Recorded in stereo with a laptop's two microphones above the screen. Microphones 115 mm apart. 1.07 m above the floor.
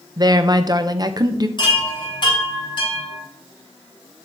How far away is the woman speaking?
About 0.7 m.